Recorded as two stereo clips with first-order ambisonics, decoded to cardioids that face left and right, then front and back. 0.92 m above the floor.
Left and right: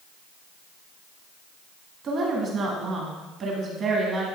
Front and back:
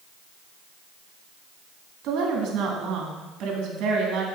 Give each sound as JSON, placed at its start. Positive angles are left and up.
{"t": 2.0, "sound": "a woman speaking", "azimuth_deg": -150, "distance_m": 1.9}